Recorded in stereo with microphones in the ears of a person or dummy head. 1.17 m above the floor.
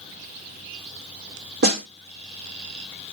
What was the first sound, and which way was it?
A snare drum, 60° right (ahead or behind).